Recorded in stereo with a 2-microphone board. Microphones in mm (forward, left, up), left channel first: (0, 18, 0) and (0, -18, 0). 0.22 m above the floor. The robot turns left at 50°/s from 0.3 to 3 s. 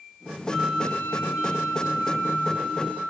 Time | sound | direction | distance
0.5 | a flute | 160° left | 6.5 m